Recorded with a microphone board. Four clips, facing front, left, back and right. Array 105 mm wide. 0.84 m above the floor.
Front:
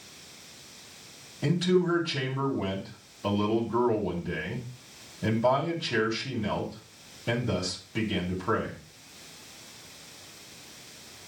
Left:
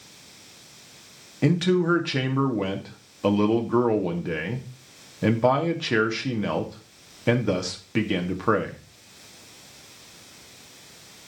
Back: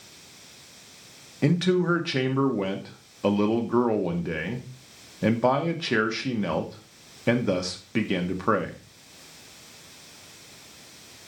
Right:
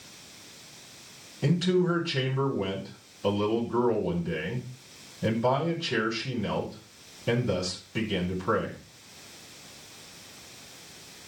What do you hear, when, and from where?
1.4 s a man speaking: 130° left, 1.8 m